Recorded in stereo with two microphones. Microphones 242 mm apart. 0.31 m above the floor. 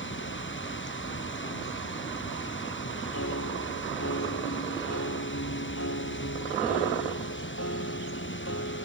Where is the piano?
75° left (ahead or behind).